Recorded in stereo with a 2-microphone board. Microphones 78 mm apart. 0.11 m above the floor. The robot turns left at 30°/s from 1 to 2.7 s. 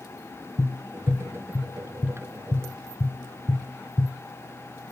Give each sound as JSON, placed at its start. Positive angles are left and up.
{"t": 0.6, "sound": "tapping", "side_deg": 70, "distance_m": 1.7}